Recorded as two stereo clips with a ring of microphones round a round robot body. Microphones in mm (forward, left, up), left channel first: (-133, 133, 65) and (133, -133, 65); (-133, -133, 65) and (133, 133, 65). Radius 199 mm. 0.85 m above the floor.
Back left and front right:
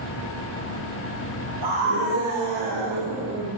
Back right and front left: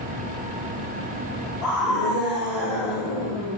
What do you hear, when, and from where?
1.6 s a scream: 45° right, 6.5 m; by 3.5 s 35° right, 7.5 m